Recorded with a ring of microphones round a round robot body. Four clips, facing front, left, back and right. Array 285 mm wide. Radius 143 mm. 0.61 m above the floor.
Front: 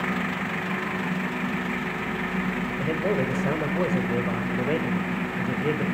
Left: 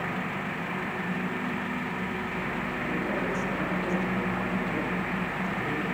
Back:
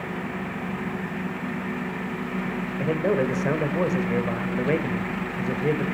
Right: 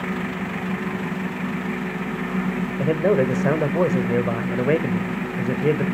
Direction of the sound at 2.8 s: 100° right.